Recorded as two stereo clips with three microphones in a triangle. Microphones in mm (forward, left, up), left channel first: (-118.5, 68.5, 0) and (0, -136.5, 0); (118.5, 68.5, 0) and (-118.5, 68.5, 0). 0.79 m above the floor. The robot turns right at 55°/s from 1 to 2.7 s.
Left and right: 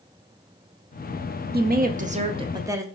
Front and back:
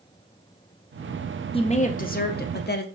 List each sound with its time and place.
1.5 s a woman speaking: 55° right, 0.5 m; by 2.9 s 10° left, 0.5 m